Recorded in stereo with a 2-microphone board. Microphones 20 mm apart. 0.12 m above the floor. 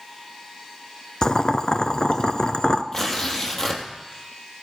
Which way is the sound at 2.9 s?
25° left (ahead or behind).